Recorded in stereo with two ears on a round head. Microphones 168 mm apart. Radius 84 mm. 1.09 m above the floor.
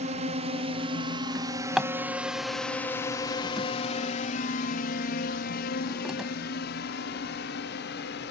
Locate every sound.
0.0 s a drone: 40° right (ahead or behind); by 8.3 s 65° left (ahead or behind)
1.4 s a drawer: 5° right (ahead or behind)